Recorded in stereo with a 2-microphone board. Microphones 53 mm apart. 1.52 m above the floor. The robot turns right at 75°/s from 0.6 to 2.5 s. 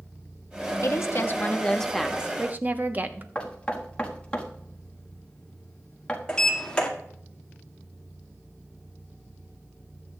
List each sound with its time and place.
0.8 s a woman speaking: 95° left, 0.9 m; by 3.2 s 140° right, 0.9 m
3.4 s knocking: 20° left (ahead or behind), 1.4 m
6.3 s a sliding door: 15° left (ahead or behind), 1.7 m